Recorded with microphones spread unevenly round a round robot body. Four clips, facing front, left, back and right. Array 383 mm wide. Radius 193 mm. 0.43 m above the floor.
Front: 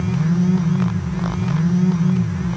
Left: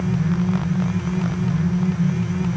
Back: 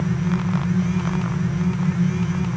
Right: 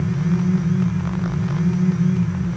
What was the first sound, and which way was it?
Only background noise.